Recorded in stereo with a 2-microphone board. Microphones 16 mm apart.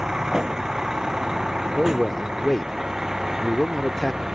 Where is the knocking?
I don't hear knocking.